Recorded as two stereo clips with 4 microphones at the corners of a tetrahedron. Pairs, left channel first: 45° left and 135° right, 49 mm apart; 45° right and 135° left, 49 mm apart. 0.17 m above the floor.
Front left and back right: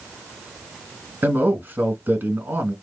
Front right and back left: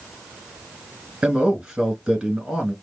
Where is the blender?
I don't hear a blender.